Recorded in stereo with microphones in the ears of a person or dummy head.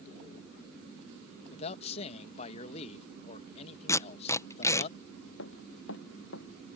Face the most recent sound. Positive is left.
turn(degrees=80)